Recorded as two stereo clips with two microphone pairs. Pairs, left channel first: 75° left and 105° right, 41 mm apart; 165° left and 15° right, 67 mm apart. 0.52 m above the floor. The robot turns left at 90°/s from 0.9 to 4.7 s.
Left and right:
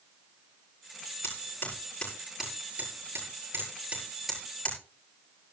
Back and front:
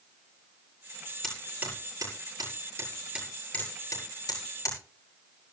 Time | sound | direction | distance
1.2 | hammering | 85° left | 8 m